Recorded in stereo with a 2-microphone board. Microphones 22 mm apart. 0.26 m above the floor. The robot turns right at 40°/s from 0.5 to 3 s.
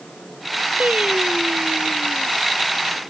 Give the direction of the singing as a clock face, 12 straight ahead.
4 o'clock.